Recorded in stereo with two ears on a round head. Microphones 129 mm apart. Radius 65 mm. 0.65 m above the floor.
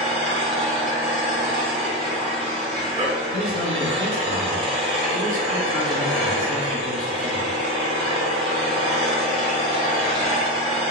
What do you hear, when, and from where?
0.0 s an engine running: 35° right (ahead or behind), 0.8 m
3.3 s a man speaking: 20° left (ahead or behind), 1.1 m